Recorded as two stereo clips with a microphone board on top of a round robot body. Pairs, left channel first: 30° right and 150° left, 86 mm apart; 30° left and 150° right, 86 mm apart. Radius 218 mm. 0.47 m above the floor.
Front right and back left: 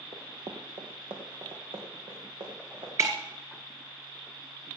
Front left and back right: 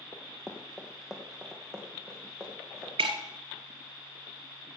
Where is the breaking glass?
150° right, 1.3 m.